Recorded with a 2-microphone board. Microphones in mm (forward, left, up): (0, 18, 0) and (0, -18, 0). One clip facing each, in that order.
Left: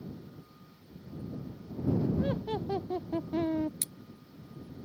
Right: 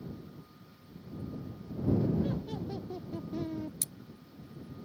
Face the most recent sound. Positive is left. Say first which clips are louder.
# left 1 dB
turn(degrees=40)  # may be behind; listen again after turning